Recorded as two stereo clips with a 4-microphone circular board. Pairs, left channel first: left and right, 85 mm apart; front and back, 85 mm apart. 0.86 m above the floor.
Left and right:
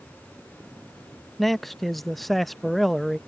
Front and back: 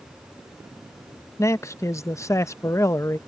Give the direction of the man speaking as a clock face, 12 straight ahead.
12 o'clock.